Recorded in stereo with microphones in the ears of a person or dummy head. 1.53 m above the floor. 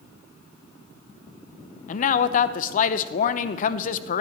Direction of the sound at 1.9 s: 45° left (ahead or behind).